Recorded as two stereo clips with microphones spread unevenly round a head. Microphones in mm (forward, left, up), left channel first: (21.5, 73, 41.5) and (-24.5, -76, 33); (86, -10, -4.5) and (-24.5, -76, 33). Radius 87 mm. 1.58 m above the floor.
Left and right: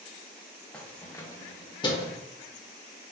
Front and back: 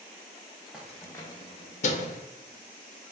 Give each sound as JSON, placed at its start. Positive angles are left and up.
{"t": 0.7, "sound": "keys jangling", "azimuth_deg": 150, "distance_m": 0.6}